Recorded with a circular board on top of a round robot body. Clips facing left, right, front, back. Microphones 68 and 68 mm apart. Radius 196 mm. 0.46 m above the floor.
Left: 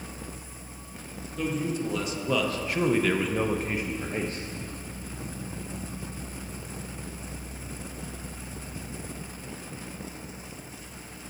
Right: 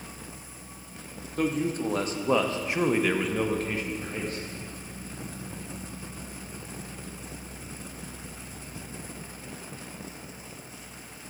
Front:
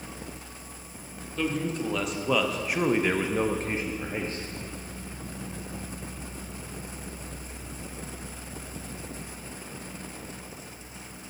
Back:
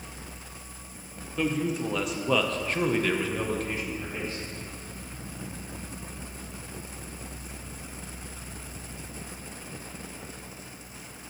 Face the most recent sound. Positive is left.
turn(degrees=45)